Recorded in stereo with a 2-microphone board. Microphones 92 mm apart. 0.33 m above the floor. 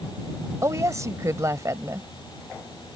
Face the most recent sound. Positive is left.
turn(degrees=-35)  # may be behind; listen again after turning